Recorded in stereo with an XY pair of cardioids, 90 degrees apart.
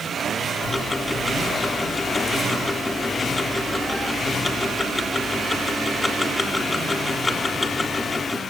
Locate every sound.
0.6 s ticking: 25° left, 4 m